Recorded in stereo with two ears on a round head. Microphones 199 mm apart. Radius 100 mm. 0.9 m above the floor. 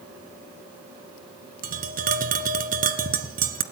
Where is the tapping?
35° right (ahead or behind), 1.8 m.